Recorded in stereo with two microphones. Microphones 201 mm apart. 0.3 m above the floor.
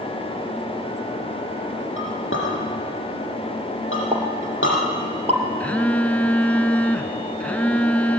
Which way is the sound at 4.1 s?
30° right (ahead or behind).